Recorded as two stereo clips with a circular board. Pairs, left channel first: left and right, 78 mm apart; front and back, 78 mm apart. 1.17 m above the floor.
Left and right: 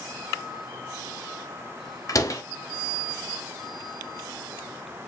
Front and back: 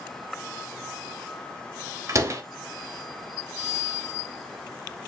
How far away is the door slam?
About 1.3 m.